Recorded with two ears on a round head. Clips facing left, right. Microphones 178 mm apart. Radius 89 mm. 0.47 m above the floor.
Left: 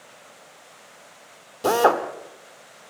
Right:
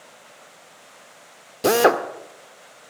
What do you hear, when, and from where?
1.6 s a drill: 25° right (ahead or behind), 1.5 m